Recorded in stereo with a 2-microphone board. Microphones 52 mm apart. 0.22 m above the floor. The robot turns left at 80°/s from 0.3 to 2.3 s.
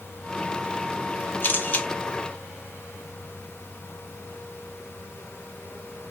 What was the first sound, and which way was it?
A camera shutter, 85° left.